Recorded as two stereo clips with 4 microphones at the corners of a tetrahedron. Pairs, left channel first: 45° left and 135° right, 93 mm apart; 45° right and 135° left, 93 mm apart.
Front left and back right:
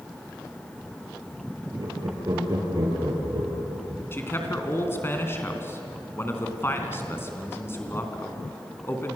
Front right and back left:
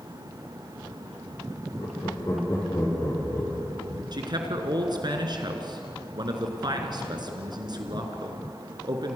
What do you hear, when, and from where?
1.8 s laughter: 90° right, 6.5 m; by 3.9 s 110° right, 6 m
4.1 s a man speaking: 105° left, 3.5 m